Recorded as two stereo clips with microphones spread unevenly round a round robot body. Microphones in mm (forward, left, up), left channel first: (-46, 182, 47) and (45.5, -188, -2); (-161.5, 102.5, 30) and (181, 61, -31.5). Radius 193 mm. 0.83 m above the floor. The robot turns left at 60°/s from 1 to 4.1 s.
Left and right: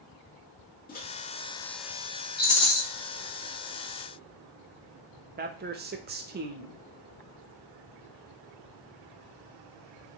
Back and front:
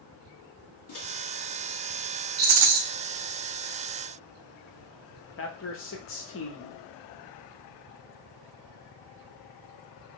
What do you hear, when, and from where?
0.9 s a microwave: 175° left, 1.4 m; by 1.1 s 170° left, 1.4 m
2.4 s a rattle: 45° left, 0.8 m; by 2.8 s 20° left, 0.8 m
5.4 s a man speaking: 130° right, 0.7 m